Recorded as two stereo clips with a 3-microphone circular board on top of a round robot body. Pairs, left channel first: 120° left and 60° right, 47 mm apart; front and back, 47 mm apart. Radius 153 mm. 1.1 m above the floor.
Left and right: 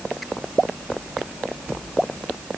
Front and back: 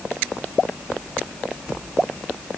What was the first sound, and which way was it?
Only background noise.